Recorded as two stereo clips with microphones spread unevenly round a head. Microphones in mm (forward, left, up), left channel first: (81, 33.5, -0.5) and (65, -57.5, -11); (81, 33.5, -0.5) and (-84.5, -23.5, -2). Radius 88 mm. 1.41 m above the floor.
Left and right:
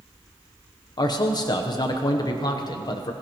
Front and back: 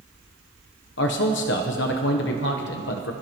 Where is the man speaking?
35° left, 1.0 m.